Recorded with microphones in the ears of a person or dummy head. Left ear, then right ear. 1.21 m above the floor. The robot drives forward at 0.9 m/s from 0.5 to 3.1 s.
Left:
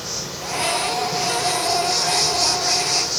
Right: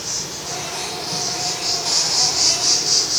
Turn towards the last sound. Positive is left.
turn(degrees=-20)  # may be behind; listen again after turning